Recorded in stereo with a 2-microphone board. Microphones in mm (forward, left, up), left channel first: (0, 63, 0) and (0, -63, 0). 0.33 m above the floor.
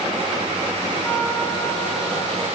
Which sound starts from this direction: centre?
A trumpet, at 1.0 s.